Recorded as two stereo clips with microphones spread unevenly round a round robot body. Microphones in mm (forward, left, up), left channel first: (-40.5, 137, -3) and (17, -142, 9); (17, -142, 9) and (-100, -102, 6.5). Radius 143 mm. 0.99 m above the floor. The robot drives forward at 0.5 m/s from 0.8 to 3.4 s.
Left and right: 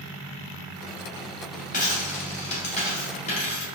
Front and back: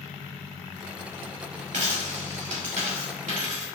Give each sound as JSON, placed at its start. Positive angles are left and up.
{"t": 1.7, "sound": "a dropped coin", "azimuth_deg": 165, "distance_m": 1.9}